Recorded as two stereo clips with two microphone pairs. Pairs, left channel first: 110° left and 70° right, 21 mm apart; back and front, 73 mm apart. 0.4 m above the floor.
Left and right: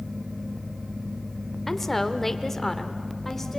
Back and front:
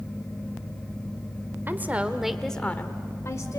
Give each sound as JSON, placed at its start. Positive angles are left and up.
{"t": 1.7, "sound": "a woman speaking", "azimuth_deg": 40, "distance_m": 1.6}